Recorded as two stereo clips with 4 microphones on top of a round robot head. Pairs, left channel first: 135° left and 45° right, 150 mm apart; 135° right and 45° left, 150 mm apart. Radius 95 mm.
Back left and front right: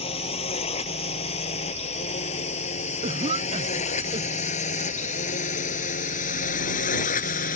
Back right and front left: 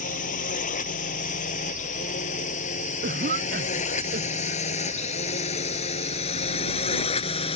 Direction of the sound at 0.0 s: 175° right.